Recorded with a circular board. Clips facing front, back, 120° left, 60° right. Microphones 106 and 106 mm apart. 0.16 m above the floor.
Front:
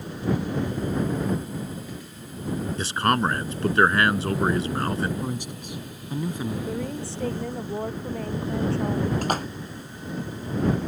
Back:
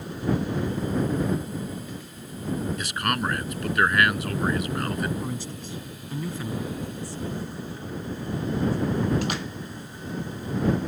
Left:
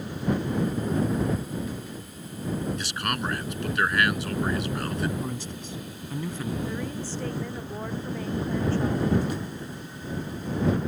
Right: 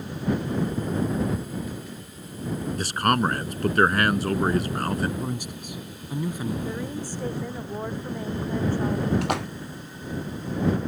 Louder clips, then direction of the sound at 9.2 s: Front 3 dB, right 4 dB; 45° right.